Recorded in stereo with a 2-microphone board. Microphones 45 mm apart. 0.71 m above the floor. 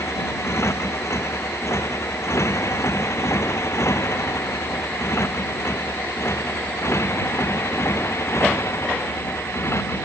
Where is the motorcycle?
85° left; by 10.1 s 70° left (ahead or behind).